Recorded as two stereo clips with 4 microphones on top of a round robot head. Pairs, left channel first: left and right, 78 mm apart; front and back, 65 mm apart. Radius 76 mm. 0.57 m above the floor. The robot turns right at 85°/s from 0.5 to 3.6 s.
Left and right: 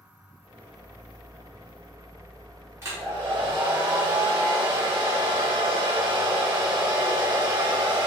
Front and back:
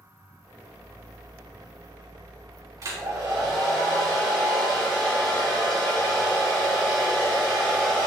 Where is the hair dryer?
150° right, 4 m; by 8.1 s 85° right, 4 m.